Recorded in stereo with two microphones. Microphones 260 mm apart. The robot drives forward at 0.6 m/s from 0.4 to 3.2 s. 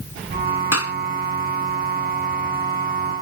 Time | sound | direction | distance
0.7 | a clap | 65° left (ahead or behind) | ?